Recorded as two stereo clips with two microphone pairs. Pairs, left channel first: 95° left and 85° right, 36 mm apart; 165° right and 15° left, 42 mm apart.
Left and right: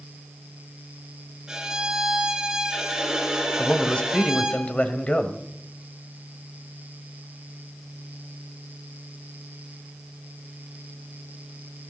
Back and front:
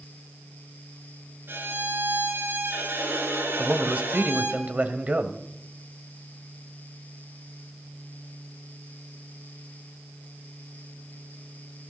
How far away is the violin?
About 5 m.